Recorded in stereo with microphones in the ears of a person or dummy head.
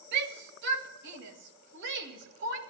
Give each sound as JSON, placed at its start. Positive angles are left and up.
{"t": 0.1, "sound": "a shout", "side_deg": -60, "distance_m": 1.7}